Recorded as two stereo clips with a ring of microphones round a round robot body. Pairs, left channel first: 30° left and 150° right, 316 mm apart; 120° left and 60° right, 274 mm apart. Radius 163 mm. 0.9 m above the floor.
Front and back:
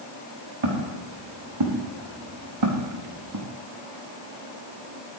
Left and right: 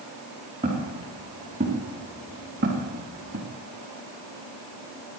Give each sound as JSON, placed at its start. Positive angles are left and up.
{"t": 0.6, "sound": "footsteps", "azimuth_deg": -135, "distance_m": 5.5}